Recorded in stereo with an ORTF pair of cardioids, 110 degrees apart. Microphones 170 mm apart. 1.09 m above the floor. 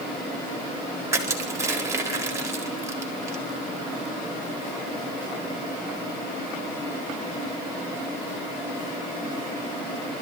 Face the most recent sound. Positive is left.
turn(degrees=-15)